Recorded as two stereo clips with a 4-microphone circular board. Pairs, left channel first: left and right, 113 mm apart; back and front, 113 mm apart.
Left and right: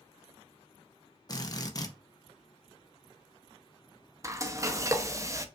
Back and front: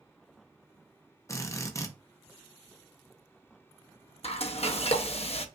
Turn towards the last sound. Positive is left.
turn(degrees=-155)